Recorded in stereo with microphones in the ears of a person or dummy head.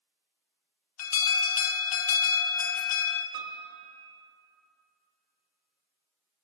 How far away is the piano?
About 1.1 m.